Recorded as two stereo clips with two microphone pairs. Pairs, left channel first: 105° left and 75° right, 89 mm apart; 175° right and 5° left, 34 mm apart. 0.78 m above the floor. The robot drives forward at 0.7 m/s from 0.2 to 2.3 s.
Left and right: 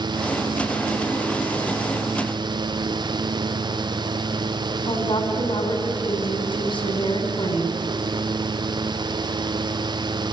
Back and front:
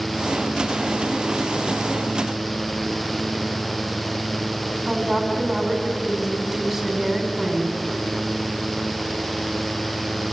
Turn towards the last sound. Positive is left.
turn(degrees=85)